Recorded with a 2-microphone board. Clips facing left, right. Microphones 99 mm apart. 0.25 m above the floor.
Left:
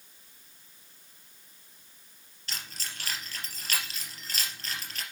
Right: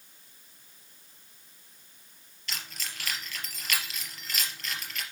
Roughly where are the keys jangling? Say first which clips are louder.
Right 1 dB; left.